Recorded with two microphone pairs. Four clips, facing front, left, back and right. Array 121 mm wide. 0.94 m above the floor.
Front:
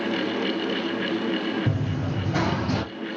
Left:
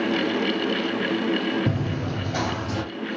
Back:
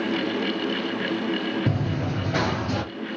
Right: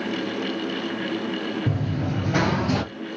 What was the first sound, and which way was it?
Running footsteps, 165° left.